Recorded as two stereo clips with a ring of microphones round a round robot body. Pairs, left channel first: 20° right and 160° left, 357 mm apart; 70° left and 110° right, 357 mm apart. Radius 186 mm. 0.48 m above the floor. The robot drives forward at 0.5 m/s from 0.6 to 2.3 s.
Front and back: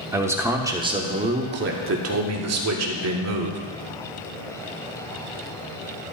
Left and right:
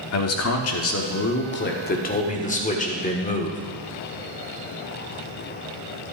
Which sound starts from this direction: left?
A man speaking, at 0.1 s.